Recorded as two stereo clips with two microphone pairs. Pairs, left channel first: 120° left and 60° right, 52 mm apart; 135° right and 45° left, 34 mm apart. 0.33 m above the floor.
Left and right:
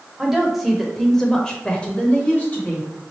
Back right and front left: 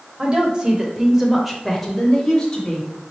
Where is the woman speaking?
15° left, 1.1 m; by 2.9 s 165° left, 1.2 m.